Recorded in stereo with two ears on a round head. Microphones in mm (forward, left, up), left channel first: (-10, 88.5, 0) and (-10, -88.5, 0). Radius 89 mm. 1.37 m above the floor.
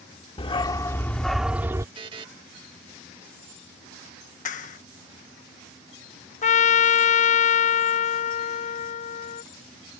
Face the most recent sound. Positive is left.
turn(degrees=35)  # may be behind; listen again after turning